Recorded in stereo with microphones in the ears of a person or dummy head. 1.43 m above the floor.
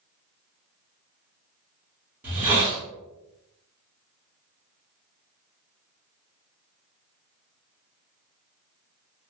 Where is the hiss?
10° right (ahead or behind), 1.1 m.